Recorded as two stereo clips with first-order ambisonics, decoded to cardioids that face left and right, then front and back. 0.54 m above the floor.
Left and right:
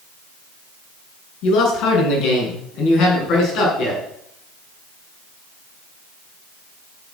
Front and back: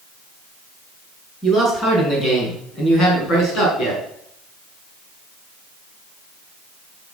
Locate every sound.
1.4 s a man speaking: 75° left, 5.5 m; by 4.0 s 50° left, 5.5 m